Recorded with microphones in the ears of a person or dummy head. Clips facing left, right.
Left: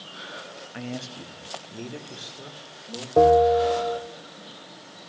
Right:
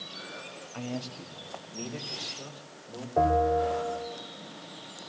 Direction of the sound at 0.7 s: 20° left (ahead or behind).